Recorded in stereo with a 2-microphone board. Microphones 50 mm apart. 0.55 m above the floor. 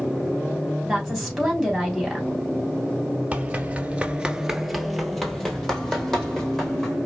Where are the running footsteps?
25° right (ahead or behind), 0.8 m; by 7.0 s 10° left (ahead or behind), 2.5 m.